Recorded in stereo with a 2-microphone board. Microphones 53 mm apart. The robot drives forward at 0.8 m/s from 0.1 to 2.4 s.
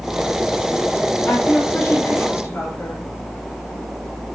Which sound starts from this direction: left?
A woman speaking, at 1.3 s.